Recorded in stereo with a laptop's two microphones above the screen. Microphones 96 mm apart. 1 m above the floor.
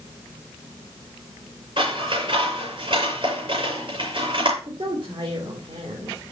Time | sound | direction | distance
1.8 | scissors | 55° right (ahead or behind) | 7 m
4.6 | a woman speaking | 50° right (ahead or behind) | 2.5 m